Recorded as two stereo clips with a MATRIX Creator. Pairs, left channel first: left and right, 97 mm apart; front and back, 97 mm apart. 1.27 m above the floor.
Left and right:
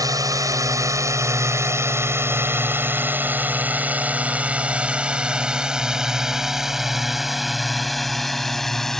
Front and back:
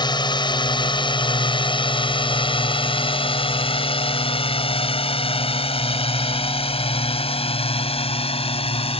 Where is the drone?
40° right; by 9.0 s 5° left.